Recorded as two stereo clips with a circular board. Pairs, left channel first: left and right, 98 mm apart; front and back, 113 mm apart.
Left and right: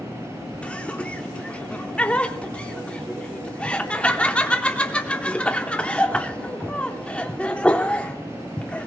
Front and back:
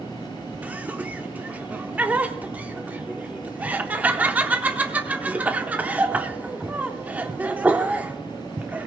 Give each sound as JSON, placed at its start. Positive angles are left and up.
{"t": 0.6, "sound": "laughter", "azimuth_deg": 140, "distance_m": 0.8}